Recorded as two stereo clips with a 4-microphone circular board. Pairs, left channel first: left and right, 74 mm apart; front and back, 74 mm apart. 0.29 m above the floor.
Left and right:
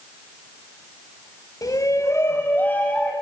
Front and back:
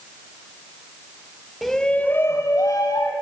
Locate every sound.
1.6 s a shout: 90° left, 1.4 m; by 3.1 s 20° left, 2 m